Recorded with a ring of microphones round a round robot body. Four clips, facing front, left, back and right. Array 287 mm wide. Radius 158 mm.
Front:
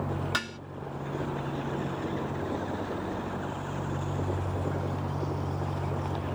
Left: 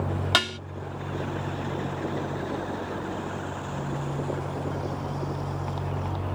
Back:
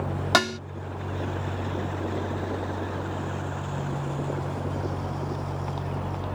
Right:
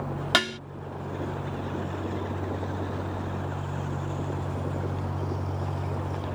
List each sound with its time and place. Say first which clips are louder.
0.3 s dishes clattering: right 2 dB, back 11 dB; 165° right